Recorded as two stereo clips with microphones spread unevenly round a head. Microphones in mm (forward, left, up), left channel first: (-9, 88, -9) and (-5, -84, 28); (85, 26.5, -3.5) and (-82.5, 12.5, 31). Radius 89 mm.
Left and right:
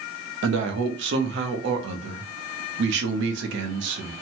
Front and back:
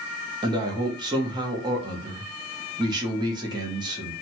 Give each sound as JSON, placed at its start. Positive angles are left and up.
{"t": 0.4, "sound": "a man speaking", "azimuth_deg": -110, "distance_m": 0.7}